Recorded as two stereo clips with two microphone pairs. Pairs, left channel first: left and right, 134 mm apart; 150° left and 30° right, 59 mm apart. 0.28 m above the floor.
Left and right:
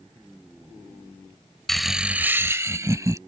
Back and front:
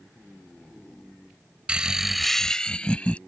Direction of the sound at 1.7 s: 10° left.